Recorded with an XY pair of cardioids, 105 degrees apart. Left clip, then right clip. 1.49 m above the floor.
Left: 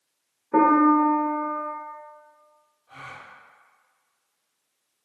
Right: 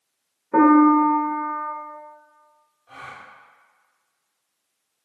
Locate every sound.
0.5 s a piano: 5° right, 0.9 m
2.9 s a gasp: 50° right, 1.0 m